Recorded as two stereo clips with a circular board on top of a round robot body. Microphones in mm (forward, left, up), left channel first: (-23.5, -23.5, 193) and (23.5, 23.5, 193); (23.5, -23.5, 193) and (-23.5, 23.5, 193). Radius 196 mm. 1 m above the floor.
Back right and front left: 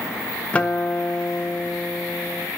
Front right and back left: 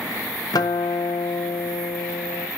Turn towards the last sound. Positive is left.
turn(degrees=-60)